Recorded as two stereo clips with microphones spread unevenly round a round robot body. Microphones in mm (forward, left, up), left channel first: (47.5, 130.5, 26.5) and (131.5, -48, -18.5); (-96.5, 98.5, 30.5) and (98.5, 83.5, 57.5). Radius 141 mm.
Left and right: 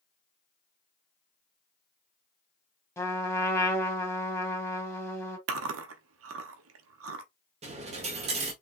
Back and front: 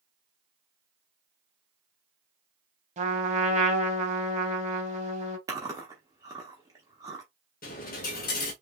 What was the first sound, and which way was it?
A trumpet, 45° left.